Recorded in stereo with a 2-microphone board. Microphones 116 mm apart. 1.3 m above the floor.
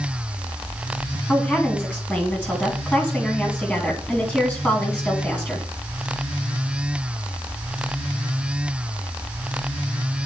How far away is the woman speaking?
About 2.5 m.